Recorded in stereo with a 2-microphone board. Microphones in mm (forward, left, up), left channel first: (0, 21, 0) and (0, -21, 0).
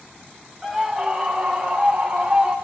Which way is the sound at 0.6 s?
5° left (ahead or behind).